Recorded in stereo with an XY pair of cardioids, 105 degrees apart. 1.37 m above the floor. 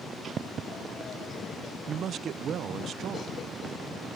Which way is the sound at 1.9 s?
60° right.